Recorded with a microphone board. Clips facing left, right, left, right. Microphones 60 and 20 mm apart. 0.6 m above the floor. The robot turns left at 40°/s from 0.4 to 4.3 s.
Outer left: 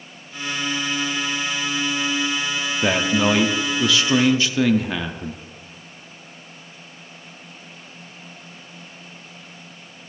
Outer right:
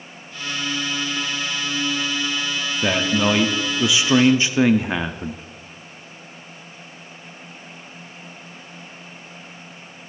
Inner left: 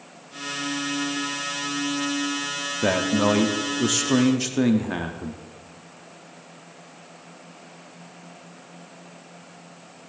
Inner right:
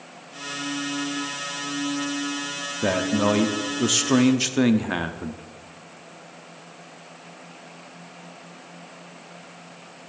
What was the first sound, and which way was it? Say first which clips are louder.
A man speaking: outer left 1 dB, inner left 1 dB; 15° left.